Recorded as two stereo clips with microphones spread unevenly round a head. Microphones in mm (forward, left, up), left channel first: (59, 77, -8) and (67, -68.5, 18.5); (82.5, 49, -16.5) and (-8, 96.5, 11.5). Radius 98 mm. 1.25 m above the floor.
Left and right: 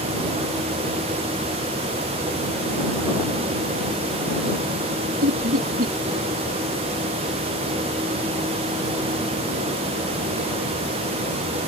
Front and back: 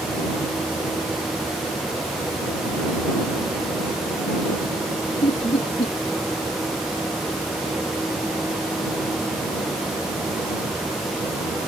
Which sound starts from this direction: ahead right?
Laughter, at 5.2 s.